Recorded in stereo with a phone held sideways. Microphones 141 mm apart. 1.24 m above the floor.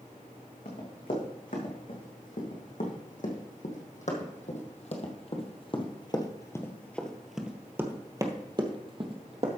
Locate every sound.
0.7 s running footsteps: 70° left (ahead or behind), 4 m; by 9.6 s 45° right (ahead or behind), 1.9 m